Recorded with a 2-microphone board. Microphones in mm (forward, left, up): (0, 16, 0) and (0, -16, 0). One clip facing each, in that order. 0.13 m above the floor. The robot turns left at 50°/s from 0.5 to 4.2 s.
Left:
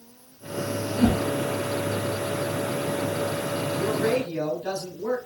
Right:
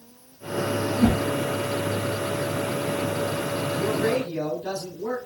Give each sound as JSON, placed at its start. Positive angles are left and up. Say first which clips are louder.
{"t": 0.9, "sound": "a whoosh", "louder": "even", "side_deg": -10, "distance_m": 0.8}
{"t": 3.8, "sound": "a man speaking", "louder": "even", "side_deg": 20, "distance_m": 1.2}